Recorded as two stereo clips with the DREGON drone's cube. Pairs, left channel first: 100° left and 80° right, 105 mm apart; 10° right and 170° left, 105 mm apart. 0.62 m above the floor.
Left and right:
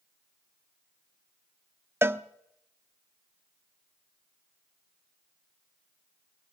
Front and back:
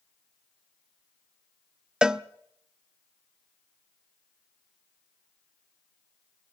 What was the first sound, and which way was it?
A cowbell, 115° right.